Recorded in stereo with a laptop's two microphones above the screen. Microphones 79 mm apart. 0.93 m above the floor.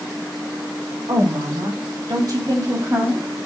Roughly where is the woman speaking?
Right.